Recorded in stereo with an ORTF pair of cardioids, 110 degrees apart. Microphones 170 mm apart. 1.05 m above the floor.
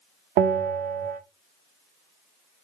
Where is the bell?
60° right, 0.9 m.